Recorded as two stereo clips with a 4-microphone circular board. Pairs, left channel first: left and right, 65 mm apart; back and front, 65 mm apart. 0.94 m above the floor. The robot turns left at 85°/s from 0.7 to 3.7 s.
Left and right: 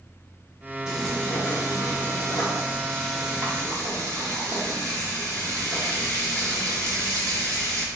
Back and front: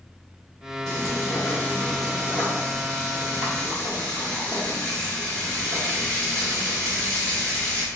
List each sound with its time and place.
0.9 s frying: 170° right, 1.5 m; by 7.8 s 50° right, 1.5 m